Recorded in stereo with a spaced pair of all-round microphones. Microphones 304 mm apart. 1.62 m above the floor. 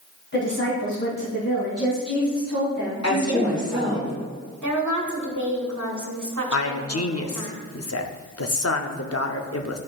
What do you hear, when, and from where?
0.3 s a woman speaking: 40° left (ahead or behind), 2.5 m; by 4.0 s 70° left (ahead or behind), 4 m
3.0 s a woman speaking: 60° left (ahead or behind), 3 m
4.6 s a woman speaking: 70° right (ahead or behind), 1.6 m
6.5 s a man speaking: 50° left (ahead or behind), 0.7 m